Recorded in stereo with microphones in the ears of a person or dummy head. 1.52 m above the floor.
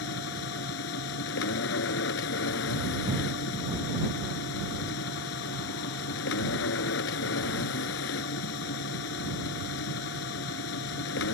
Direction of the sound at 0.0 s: 80° left.